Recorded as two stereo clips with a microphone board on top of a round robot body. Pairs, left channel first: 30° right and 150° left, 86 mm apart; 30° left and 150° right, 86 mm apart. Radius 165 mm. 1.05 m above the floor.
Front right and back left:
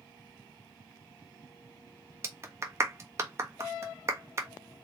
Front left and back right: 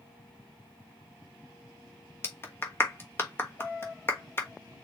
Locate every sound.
2.2 s a clap: 95° left, 1.3 m